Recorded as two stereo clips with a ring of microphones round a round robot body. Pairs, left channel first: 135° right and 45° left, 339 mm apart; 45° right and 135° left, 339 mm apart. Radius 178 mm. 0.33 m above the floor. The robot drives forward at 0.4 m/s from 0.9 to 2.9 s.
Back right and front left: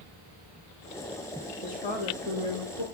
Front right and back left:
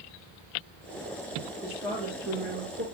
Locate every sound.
1.6 s a woman speaking: 150° right, 7 m